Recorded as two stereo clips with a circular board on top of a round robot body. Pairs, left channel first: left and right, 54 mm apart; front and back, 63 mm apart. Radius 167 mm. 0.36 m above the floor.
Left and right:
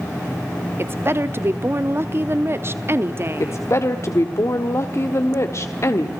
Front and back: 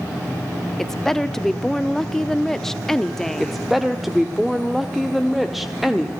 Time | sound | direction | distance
0.8 | a woman speaking | 80° right | 1.2 m
3.4 | a woman speaking | 95° left | 1.7 m